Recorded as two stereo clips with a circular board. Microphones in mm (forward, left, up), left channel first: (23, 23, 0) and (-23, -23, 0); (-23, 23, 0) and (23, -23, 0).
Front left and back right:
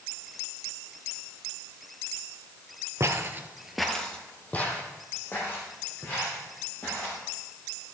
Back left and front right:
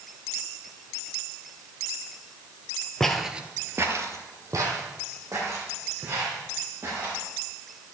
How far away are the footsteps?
About 1.0 m.